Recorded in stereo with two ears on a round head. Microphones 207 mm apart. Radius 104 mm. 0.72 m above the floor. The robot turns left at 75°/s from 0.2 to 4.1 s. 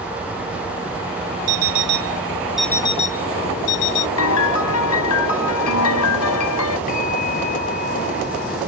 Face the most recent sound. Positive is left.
turn(degrees=40)  # may be behind; listen again after turning